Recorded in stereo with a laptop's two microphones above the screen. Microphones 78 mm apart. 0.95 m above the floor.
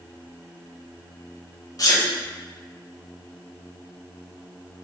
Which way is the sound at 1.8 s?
45° left (ahead or behind).